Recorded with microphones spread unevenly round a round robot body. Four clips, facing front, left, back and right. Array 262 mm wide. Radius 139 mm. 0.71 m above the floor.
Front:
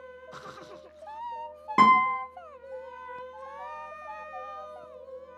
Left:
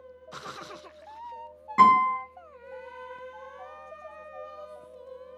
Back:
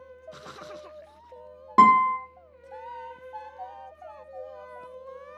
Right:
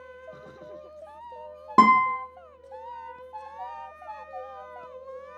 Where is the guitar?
85° right, 0.7 m.